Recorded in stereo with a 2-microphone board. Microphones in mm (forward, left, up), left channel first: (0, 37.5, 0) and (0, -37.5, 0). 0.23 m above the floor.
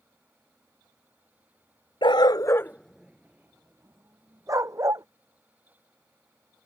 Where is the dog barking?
75° left (ahead or behind); by 5.0 s 45° right (ahead or behind).